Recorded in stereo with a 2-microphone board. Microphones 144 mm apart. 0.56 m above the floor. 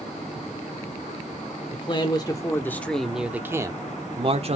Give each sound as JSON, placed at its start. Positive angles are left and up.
{"t": 1.7, "sound": "a man speaking", "side_deg": 40, "distance_m": 1.5}